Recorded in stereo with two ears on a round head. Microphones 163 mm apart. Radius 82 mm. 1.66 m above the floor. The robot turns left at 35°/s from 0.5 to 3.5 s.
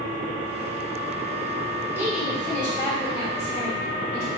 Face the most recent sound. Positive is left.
turn(degrees=145)